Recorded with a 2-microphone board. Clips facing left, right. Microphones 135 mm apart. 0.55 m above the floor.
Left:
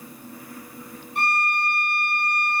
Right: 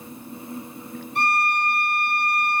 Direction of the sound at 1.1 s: 85° right.